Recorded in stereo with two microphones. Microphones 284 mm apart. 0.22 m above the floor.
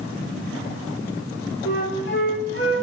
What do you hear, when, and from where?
1.6 s a flute: 40° left (ahead or behind), 0.7 m